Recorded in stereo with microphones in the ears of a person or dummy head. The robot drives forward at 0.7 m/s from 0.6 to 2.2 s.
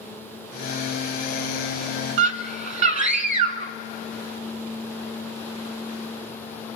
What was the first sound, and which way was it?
A scream, 50° right (ahead or behind).